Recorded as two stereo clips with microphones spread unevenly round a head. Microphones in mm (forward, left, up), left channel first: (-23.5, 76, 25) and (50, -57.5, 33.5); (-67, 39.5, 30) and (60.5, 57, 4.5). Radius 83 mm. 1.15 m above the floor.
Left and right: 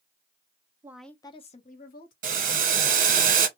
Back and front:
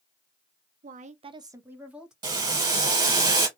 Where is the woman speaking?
10° left, 0.6 m; by 2.1 s 95° left, 1.2 m.